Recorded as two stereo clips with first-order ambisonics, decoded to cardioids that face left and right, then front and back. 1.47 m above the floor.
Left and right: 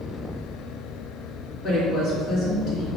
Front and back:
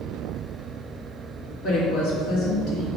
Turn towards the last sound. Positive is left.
turn(degrees=30)